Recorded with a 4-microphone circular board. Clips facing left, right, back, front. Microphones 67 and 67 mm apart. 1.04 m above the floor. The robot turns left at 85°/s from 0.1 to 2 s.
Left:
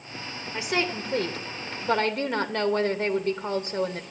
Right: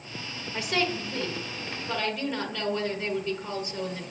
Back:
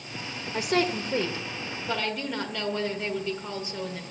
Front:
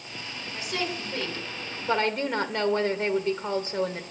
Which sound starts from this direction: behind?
A woman speaking, at 0.5 s.